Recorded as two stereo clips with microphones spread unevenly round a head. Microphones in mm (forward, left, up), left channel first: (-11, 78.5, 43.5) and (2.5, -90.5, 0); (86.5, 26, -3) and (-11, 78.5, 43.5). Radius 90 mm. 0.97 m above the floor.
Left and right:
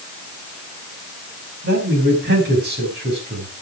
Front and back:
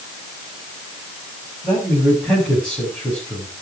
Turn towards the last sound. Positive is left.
turn(degrees=-115)